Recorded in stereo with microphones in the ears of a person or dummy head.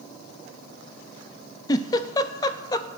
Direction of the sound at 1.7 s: 15° left (ahead or behind).